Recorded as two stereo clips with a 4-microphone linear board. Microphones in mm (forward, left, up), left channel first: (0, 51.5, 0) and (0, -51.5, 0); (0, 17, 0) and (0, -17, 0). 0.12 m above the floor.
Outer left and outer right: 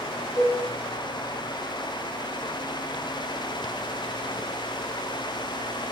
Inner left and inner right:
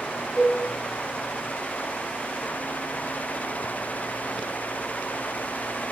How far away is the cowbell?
About 8.5 m.